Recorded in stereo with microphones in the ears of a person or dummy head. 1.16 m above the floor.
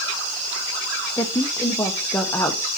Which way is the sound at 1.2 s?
10° left (ahead or behind).